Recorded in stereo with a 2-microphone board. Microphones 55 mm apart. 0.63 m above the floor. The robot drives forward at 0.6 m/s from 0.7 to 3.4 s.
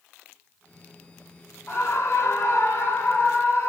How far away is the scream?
About 1.1 m.